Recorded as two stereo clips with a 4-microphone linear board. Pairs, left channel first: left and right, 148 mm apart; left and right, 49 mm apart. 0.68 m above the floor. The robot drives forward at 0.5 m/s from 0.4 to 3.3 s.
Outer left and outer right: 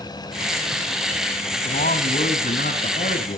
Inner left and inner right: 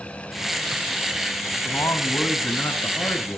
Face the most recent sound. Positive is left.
turn(degrees=75)  # may be behind; listen again after turning